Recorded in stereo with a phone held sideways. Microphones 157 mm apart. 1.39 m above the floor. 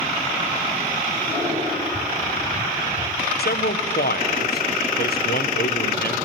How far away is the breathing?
About 6 m.